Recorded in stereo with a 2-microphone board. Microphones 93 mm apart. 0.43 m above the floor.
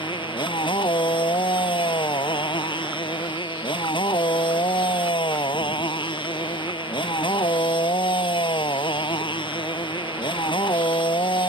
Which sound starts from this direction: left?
A motorcycle, at 0.0 s.